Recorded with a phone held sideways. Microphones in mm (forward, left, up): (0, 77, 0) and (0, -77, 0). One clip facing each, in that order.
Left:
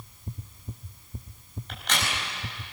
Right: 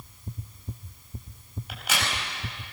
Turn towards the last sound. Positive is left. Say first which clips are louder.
# even
turn(degrees=-5)  # may be behind; listen again after turning